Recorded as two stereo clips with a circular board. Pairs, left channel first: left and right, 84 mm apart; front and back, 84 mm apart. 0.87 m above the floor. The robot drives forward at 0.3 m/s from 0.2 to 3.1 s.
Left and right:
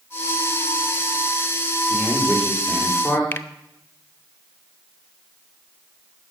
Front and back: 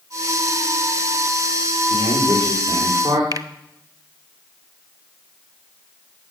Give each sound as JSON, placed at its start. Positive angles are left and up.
{"t": 1.9, "sound": "a man speaking", "azimuth_deg": 180, "distance_m": 2.0}
{"t": 3.3, "sound": "a finger snap", "azimuth_deg": 150, "distance_m": 0.6}